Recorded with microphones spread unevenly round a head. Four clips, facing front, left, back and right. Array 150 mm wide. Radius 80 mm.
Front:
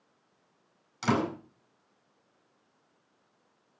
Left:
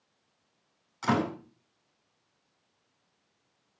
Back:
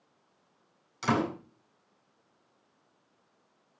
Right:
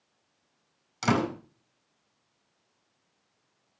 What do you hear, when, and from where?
1.0 s a door slam: 85° right, 9.5 m